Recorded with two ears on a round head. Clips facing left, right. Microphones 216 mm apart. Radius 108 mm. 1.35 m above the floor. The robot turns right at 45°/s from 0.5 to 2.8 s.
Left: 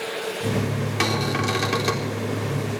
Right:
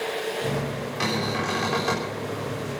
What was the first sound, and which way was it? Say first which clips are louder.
A cupboard door: left 2 dB; 100° left.